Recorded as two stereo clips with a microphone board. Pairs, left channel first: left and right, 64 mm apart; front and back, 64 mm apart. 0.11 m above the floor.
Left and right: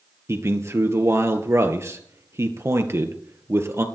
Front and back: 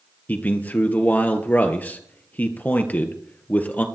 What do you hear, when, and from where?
0.3 s a man speaking: 60° right, 2.0 m